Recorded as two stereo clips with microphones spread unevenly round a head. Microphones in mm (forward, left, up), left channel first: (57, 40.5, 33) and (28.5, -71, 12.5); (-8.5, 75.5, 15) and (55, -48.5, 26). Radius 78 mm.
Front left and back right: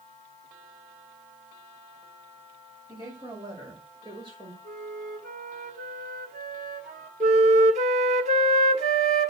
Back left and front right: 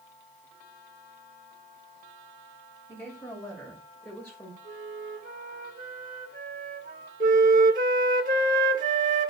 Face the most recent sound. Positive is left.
turn(degrees=-85)